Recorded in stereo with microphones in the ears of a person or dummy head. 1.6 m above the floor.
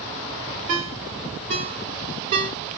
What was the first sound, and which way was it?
A ringtone, 30° right (ahead or behind).